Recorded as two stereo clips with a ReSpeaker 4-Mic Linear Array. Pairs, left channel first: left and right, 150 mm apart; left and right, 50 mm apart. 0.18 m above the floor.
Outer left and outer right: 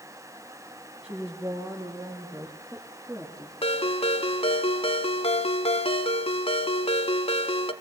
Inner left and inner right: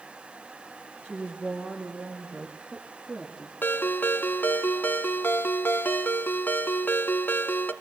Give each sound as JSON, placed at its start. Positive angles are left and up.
{"t": 1.0, "sound": "a woman speaking", "side_deg": -40, "distance_m": 6.0}
{"t": 3.6, "sound": "a ringtone", "side_deg": 40, "distance_m": 1.2}